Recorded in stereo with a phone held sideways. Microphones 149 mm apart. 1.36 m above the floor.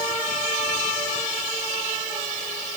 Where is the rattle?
I don't hear a rattle.